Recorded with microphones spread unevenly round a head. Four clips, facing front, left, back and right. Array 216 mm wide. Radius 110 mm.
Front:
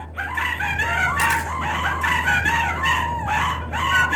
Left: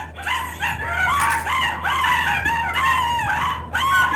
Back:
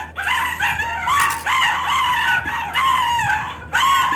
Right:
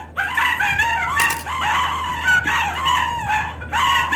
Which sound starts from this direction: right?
A camera shutter, at 1.2 s.